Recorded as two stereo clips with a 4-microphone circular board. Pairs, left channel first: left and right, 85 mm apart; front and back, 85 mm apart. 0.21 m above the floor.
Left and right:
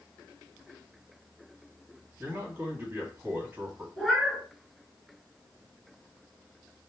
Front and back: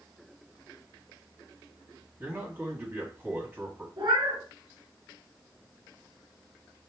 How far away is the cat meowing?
About 1.2 m.